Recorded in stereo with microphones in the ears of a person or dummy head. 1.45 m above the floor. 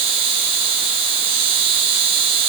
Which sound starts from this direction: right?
An insect, at 0.0 s.